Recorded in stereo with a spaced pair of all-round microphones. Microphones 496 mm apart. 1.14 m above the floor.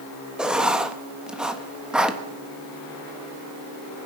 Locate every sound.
0.4 s writing: centre (ahead or behind), 0.9 m